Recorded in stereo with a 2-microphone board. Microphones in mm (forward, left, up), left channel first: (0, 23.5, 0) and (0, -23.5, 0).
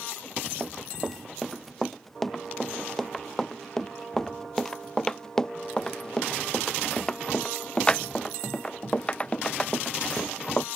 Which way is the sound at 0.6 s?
Centre (ahead or behind).